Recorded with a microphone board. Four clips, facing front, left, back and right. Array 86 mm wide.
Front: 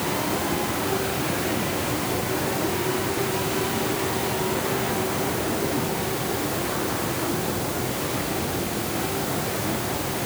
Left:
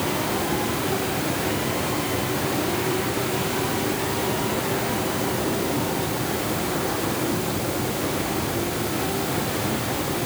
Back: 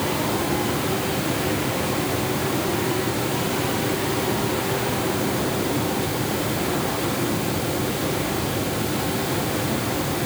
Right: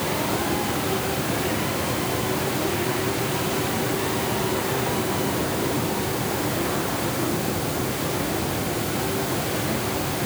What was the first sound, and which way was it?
Only background noise.